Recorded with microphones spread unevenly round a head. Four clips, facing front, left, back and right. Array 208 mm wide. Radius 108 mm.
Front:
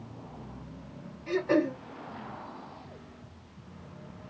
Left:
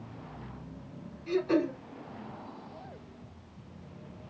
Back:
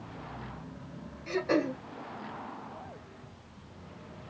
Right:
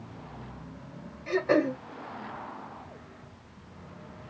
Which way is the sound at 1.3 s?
100° right.